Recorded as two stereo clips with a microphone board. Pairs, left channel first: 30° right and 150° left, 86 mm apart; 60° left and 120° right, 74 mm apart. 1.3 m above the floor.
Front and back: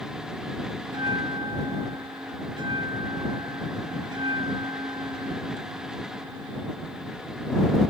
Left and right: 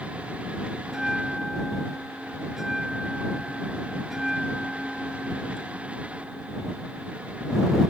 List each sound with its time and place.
0.8 s a bell: 155° left